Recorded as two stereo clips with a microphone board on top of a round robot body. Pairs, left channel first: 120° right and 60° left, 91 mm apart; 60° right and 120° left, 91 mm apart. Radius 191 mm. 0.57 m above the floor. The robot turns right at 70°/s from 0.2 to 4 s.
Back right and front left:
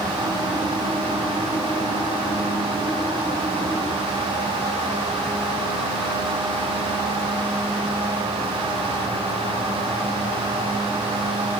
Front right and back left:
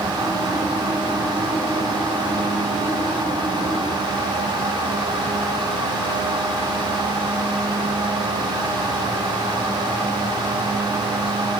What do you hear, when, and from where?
Only background noise.